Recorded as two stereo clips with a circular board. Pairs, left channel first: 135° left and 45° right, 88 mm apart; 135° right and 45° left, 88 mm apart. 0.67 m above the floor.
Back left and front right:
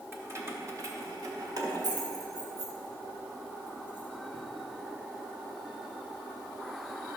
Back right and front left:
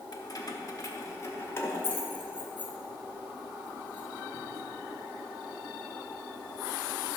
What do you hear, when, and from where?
0.1 s keys jangling: 105° right, 1.3 m; by 4.4 s 60° right, 3 m